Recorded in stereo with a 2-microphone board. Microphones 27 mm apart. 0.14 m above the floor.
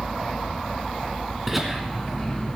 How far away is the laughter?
About 1.3 m.